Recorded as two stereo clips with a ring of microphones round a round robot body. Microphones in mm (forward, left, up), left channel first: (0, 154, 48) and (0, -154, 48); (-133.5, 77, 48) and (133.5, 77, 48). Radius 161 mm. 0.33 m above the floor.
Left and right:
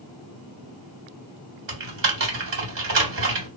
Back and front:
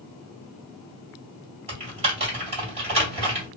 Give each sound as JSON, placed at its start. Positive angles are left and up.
{"t": 1.7, "sound": "typing on a keyboard", "azimuth_deg": -60, "distance_m": 2.0}